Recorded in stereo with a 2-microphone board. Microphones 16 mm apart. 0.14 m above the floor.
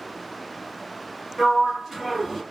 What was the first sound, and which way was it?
A sliding door, 5° right (ahead or behind).